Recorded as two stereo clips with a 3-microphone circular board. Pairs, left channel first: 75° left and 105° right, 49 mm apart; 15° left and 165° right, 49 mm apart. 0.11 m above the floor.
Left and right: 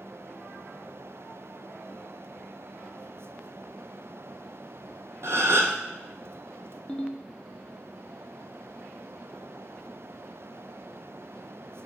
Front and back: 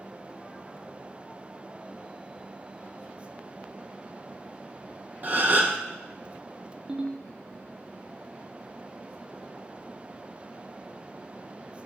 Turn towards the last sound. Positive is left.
turn(degrees=135)